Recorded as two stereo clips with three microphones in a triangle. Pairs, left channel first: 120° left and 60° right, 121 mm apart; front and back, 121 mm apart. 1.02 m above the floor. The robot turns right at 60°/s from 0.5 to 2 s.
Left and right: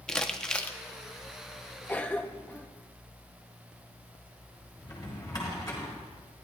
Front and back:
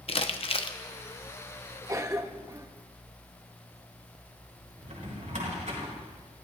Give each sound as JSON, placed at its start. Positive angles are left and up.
{"t": 0.1, "sound": "crumpling", "azimuth_deg": 40, "distance_m": 0.7}
{"t": 1.9, "sound": "a cough", "azimuth_deg": 180, "distance_m": 0.6}
{"t": 4.8, "sound": "a drawer", "azimuth_deg": 180, "distance_m": 4.0}